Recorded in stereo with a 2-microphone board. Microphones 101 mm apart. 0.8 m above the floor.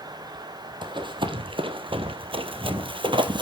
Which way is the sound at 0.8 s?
50° right (ahead or behind).